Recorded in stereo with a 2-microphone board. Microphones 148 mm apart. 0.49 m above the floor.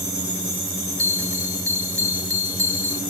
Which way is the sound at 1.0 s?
20° right (ahead or behind).